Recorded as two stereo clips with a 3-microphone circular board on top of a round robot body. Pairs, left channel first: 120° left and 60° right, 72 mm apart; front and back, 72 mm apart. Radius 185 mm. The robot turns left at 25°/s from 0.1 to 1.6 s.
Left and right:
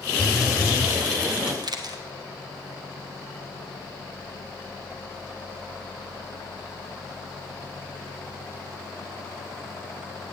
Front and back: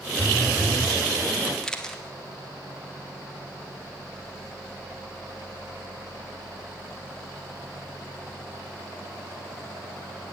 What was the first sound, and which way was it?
A phone buzzing, 15° left.